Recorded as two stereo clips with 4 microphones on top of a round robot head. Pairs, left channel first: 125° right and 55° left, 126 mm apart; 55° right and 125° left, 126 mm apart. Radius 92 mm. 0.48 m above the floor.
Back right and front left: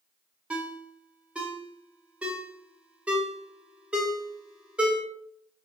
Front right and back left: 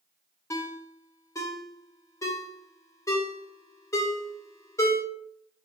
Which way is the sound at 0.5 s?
15° right.